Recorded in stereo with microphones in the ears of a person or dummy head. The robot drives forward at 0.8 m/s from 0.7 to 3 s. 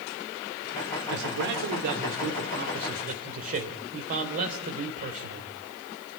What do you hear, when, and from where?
1.1 s a man speaking: 70° right (ahead or behind), 2.5 m; by 5.5 s 45° right (ahead or behind), 3.5 m